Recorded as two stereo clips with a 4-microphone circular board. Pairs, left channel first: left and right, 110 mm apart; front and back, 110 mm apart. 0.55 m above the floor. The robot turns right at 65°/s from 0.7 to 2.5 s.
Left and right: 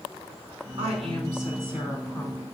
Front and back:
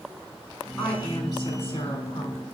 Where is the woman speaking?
85° right, 4.5 m; by 2.4 s 20° left, 4.5 m.